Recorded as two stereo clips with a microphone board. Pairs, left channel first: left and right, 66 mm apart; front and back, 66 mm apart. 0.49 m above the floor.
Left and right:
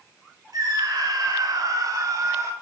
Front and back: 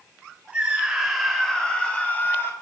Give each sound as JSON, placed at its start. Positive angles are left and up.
{"t": 0.5, "sound": "a scream", "azimuth_deg": -105, "distance_m": 3.5}